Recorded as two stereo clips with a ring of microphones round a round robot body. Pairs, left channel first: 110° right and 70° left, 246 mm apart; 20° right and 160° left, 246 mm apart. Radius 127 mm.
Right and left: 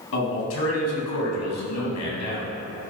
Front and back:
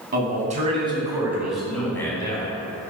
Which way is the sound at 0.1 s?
150° right.